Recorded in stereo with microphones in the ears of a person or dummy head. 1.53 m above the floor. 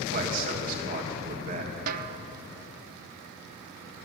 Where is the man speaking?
40° right (ahead or behind), 2.5 m.